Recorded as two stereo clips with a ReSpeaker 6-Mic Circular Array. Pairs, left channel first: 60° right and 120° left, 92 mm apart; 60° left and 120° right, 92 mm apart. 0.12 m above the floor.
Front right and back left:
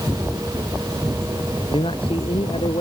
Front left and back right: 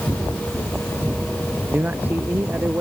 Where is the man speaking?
50° right.